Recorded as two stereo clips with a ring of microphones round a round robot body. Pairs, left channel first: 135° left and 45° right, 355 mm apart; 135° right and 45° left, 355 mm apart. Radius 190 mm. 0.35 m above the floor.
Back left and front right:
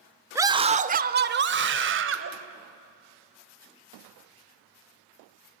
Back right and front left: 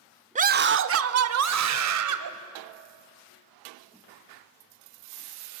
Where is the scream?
25° left, 0.8 m; by 2.3 s 10° left, 1.9 m.